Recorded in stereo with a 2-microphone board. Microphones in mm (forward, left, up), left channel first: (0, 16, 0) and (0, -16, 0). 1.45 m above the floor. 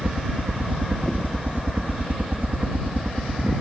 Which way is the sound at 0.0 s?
60° right (ahead or behind).